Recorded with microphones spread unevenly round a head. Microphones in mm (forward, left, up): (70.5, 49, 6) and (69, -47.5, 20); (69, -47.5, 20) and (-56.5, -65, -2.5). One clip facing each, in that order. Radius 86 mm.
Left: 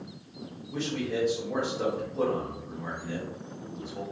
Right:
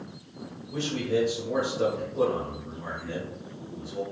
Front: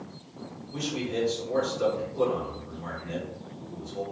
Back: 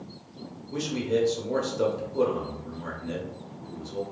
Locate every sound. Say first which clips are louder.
0.7 s a man speaking: right 4 dB, back 4 dB; 175° right, 1.1 m